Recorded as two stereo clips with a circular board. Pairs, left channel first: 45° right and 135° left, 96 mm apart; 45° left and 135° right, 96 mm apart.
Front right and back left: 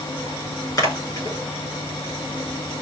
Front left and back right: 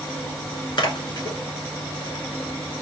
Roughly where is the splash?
Ahead.